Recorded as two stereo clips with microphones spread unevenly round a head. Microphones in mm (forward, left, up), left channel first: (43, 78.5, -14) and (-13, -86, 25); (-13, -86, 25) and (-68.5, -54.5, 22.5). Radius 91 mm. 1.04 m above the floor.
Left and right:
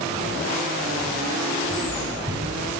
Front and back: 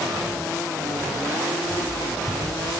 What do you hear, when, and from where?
1.6 s footsteps: 45° right, 1.3 m; by 2.7 s 55° right, 1.7 m